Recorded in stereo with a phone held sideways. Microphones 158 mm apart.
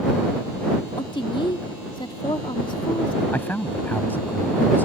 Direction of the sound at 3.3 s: 10° left (ahead or behind).